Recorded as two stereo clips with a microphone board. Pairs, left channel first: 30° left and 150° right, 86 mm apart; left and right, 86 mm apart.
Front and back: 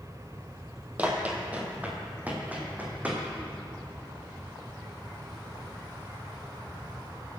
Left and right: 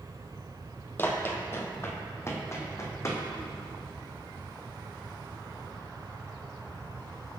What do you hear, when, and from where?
1.0 s running footsteps: 145° left, 2 m; by 3.2 s 140° left, 3.5 m